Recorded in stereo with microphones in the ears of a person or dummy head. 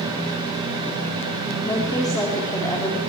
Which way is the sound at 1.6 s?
20° left (ahead or behind).